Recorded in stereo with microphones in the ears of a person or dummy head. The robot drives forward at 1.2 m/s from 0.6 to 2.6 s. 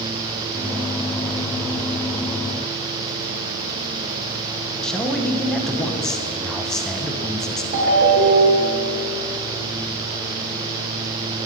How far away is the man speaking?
About 0.6 m.